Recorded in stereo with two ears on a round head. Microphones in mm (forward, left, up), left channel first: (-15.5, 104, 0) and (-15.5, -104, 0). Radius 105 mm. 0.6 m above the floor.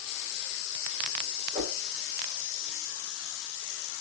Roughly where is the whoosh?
Right.